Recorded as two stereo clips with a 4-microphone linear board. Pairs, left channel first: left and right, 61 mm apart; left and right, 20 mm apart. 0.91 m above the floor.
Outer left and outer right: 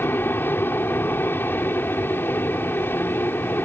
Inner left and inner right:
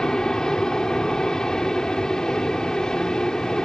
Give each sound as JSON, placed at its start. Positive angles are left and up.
{"t": 0.0, "sound": "an aircraft", "side_deg": 35}